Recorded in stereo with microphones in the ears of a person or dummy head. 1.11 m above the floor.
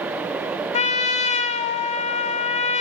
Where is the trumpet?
35° left (ahead or behind), 0.7 m.